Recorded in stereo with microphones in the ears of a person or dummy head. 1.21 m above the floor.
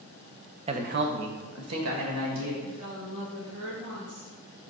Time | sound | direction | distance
0.7 | a woman speaking | 35° right (ahead or behind) | 0.7 m
2.6 | a woman speaking | 75° right (ahead or behind) | 2.0 m